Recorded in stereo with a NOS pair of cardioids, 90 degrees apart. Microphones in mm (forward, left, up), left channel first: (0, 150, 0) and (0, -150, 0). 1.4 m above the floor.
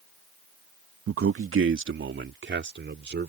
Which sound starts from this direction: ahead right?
A man speaking, at 1.1 s.